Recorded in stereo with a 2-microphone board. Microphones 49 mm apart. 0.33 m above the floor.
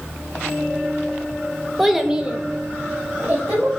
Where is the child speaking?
5° right (ahead or behind), 0.6 m; by 3.8 s 25° right (ahead or behind), 1.1 m.